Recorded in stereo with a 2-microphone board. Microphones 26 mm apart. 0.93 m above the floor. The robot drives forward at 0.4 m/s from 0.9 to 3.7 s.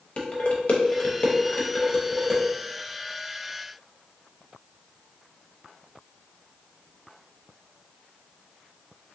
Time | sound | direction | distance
0.2 | dishes clattering | 50° left (ahead or behind) | 0.6 m